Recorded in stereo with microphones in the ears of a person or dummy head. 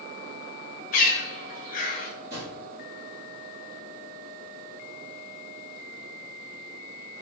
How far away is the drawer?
About 1.5 m.